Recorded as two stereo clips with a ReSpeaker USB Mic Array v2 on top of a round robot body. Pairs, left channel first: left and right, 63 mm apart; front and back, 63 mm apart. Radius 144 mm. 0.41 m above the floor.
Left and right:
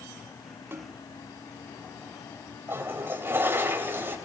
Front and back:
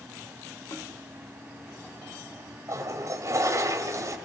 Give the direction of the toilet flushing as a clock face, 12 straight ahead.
5 o'clock.